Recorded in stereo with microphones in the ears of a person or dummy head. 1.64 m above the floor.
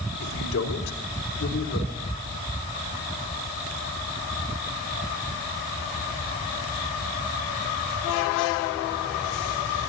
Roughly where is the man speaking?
Left.